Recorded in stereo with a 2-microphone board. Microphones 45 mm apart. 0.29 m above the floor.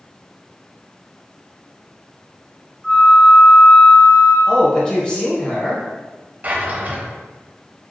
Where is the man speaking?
20° left (ahead or behind), 1.3 m.